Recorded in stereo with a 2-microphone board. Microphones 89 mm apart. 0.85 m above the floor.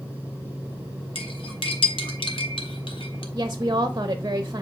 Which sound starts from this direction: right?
A woman speaking, at 3.4 s.